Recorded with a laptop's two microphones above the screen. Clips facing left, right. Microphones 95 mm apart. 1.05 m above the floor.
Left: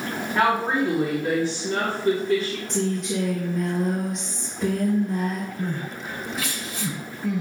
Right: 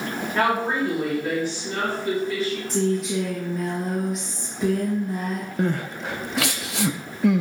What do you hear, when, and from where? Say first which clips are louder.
0.3 s a woman speaking: left 1 dB; 15° left (ahead or behind), 1.8 m; by 2.6 s 50° left (ahead or behind), 2.5 m
2.7 s a woman speaking: right 2 dB; 5° right (ahead or behind), 1.4 m
5.6 s crying: right 5 dB; 70° right (ahead or behind), 0.5 m